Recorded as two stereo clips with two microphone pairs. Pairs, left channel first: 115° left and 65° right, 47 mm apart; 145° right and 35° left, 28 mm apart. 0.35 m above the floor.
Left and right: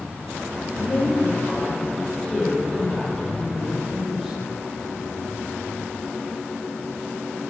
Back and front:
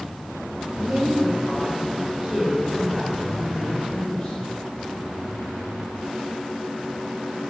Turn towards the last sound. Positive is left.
turn(degrees=-135)